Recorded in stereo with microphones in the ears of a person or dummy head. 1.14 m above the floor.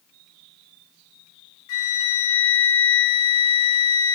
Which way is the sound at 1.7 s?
75° left (ahead or behind).